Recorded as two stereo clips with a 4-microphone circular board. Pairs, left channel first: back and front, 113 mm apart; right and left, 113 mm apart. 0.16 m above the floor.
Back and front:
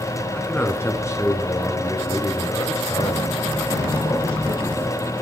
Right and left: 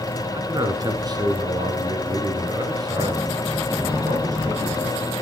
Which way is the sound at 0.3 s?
115° left.